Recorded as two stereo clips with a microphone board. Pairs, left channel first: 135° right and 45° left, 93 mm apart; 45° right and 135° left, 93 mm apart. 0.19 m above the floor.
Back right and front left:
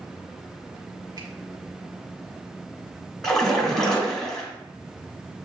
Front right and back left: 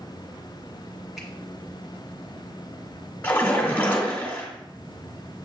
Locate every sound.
1.2 s a finger snap: 45° left, 1.4 m
3.2 s a splash: 60° right, 1.4 m